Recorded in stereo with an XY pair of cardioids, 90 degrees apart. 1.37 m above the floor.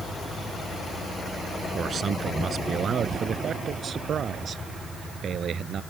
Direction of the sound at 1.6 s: 55° right.